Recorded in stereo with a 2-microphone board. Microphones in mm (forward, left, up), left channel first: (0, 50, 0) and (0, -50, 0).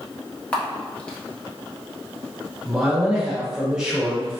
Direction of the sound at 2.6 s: 10° right (ahead or behind).